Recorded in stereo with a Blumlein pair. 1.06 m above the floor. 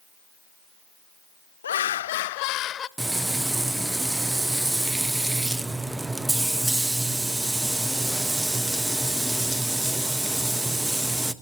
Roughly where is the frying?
Ahead.